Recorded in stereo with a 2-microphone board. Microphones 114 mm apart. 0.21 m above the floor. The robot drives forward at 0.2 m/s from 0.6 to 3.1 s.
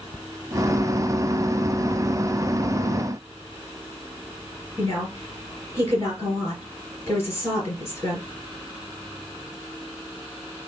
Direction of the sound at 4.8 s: 20° left (ahead or behind).